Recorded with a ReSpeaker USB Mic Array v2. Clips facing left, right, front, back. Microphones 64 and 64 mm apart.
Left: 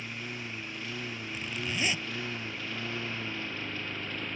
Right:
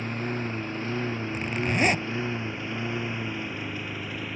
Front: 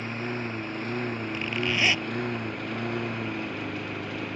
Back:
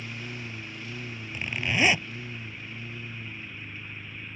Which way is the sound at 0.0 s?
45° right.